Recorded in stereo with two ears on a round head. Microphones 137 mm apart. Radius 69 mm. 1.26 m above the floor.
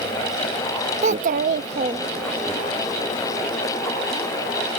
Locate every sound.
1.0 s a child speaking: 45° right (ahead or behind); by 2.5 s 15° right (ahead or behind)